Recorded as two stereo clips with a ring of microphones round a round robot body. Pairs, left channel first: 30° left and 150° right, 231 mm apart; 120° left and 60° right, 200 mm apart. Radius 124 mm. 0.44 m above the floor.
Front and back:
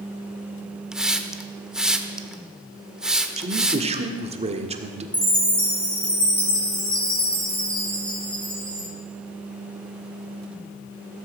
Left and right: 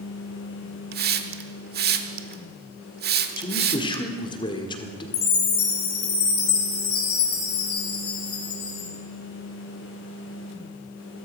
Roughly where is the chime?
Behind left.